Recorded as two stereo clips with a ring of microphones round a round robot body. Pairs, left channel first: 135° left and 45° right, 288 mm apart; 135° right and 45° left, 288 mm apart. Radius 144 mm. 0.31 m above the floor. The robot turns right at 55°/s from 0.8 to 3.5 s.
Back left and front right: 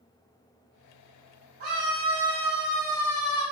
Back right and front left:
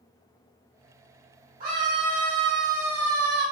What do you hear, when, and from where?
1.6 s a scream: 10° right, 2.5 m; by 3.4 s 90° left, 2.5 m